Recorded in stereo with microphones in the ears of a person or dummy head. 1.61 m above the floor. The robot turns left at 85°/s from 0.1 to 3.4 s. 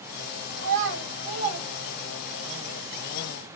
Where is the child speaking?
55° right (ahead or behind), 2.0 m; by 2.5 s 40° left (ahead or behind), 2.0 m.